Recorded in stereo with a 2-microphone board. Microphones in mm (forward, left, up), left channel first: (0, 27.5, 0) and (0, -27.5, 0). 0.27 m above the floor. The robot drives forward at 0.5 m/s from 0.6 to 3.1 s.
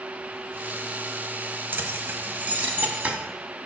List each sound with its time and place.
1.7 s keys jangling: 40° right (ahead or behind), 1.0 m; by 3.2 s 30° right (ahead or behind), 1.4 m